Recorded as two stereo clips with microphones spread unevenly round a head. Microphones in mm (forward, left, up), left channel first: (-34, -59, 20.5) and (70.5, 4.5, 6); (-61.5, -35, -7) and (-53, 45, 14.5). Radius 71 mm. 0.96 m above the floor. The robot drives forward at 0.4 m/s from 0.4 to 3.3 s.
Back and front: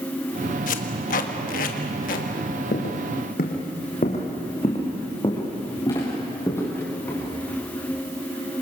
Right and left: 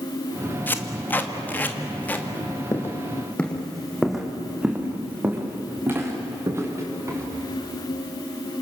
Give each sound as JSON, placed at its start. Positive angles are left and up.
{"t": 0.7, "sound": "tape being pulled", "azimuth_deg": -155, "distance_m": 1.7}
{"t": 2.7, "sound": "footsteps", "azimuth_deg": -160, "distance_m": 3.0}